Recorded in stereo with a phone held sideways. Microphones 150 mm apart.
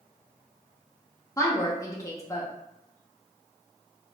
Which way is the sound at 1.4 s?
20° left (ahead or behind).